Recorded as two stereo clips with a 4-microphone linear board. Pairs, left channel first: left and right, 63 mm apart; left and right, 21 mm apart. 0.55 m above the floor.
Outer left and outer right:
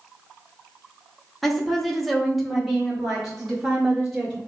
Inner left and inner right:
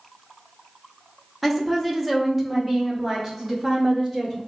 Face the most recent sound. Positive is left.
turn(degrees=-5)  # may be behind; listen again after turning